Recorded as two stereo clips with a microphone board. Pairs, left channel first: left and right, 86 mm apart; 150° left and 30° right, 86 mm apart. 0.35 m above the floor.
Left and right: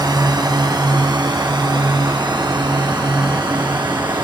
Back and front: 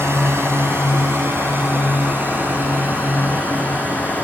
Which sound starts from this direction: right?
A drone, at 0.0 s.